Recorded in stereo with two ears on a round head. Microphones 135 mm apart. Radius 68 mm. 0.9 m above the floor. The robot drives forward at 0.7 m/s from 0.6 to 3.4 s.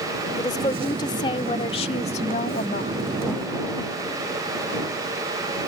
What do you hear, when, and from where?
0.4 s a woman speaking: 30° left (ahead or behind); by 2.9 s 60° left (ahead or behind)